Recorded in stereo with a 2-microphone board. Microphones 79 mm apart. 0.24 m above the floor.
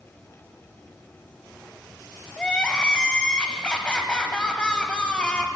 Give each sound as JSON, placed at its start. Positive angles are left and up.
{"t": 2.4, "sound": "crying", "side_deg": 15, "distance_m": 0.5}